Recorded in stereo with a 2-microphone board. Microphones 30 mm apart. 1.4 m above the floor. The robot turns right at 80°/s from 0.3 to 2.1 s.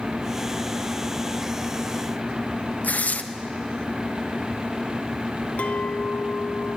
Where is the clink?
50° left (ahead or behind), 0.6 m.